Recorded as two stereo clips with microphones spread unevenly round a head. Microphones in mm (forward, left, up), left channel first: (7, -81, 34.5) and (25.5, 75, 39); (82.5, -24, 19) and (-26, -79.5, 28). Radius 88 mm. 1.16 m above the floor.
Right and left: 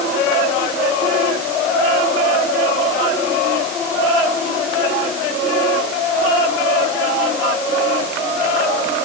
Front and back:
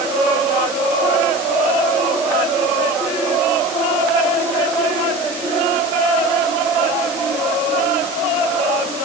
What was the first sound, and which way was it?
Only background noise.